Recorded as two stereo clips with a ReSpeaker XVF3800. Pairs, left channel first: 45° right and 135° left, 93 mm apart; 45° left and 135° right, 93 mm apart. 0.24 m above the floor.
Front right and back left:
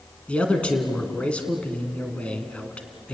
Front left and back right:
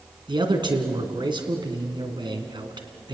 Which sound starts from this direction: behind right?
A man speaking, at 0.3 s.